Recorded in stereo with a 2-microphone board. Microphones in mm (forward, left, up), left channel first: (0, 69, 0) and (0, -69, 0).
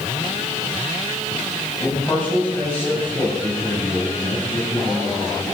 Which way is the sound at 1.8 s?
10° left (ahead or behind).